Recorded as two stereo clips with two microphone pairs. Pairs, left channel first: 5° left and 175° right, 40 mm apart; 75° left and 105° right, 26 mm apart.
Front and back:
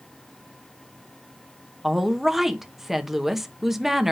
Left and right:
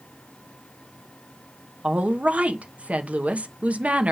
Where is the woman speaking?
90° right, 1.1 m.